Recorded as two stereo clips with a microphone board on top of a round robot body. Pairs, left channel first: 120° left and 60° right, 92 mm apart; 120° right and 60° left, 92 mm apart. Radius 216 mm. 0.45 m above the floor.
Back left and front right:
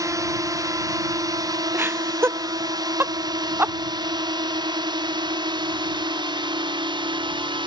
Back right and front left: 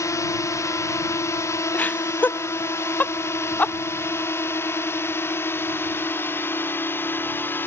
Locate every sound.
0.0 s a drone: 85° right; by 7.7 s 55° right
1.7 s laughter: 75° right